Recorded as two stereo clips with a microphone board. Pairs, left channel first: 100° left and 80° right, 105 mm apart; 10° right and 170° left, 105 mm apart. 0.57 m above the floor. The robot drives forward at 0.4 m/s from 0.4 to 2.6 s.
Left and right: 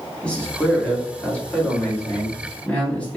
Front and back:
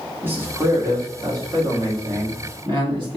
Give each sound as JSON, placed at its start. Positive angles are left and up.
{"t": 0.2, "sound": "a man speaking", "azimuth_deg": 155, "distance_m": 1.0}